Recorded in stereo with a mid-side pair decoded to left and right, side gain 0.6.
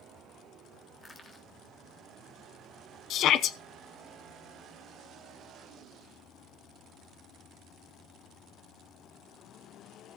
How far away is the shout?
About 0.8 m.